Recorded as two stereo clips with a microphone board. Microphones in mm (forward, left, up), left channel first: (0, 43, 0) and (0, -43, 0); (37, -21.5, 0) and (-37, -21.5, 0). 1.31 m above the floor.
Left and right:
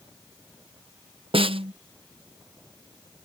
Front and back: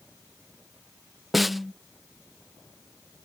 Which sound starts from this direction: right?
A snare drum, at 1.3 s.